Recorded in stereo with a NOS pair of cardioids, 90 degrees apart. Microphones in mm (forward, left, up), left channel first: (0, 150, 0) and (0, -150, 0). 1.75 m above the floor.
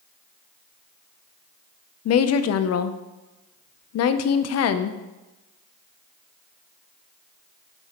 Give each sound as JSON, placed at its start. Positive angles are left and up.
{"t": 2.0, "sound": "a woman speaking", "azimuth_deg": 60, "distance_m": 0.7}